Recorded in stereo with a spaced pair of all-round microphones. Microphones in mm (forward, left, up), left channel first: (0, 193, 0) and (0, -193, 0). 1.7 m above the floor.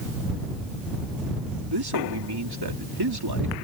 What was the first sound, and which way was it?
A man speaking, 75° right (ahead or behind).